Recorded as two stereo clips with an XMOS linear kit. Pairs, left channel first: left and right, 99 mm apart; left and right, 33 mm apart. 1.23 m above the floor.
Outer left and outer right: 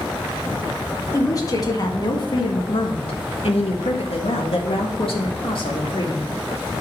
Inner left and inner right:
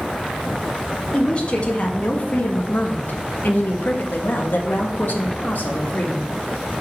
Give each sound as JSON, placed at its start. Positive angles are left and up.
{"t": 1.1, "sound": "a woman speaking", "side_deg": 35, "distance_m": 1.7}